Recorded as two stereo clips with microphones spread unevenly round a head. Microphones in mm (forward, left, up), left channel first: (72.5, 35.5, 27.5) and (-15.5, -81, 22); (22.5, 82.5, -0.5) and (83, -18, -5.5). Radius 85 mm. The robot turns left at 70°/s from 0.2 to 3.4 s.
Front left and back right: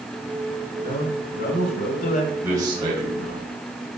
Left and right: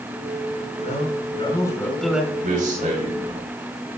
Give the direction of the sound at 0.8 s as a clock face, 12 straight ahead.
8 o'clock.